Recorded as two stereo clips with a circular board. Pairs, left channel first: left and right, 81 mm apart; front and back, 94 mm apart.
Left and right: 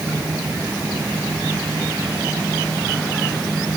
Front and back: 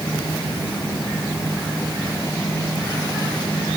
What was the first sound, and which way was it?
Only background noise.